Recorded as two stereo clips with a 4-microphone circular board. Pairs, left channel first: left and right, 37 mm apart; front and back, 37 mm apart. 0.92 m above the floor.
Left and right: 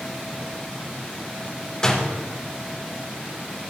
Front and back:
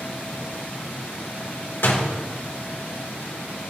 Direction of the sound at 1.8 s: 20° left.